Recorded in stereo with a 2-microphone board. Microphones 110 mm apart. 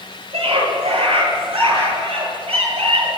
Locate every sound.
0.3 s a scream: 55° right (ahead or behind), 8.5 m; by 3.1 s 60° right (ahead or behind), 9.5 m